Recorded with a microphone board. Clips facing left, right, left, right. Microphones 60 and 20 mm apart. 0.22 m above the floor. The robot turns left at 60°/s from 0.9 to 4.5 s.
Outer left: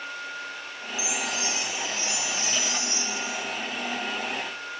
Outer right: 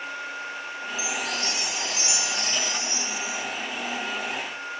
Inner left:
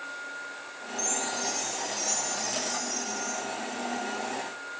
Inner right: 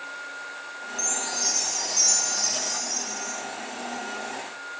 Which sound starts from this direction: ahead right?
A chime, at 1.0 s.